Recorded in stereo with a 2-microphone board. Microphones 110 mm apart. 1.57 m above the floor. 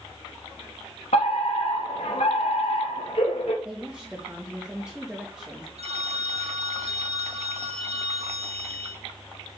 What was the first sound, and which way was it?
A fire alarm, 75° left (ahead or behind).